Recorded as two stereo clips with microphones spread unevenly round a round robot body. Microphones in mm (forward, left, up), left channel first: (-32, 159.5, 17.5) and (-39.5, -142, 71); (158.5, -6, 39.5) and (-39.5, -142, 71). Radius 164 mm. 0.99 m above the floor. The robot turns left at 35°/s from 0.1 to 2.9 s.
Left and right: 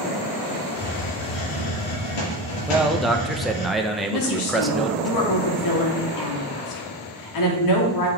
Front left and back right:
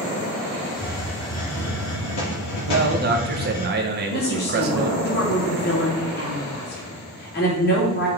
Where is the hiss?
130° left, 3.5 m; by 3.7 s 50° left, 3.5 m.